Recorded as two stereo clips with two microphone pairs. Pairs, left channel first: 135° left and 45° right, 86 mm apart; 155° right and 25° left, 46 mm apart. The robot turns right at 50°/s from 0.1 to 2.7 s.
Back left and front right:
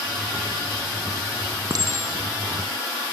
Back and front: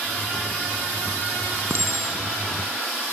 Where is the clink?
5° right, 2.0 m; by 2.2 s 20° left, 2.0 m.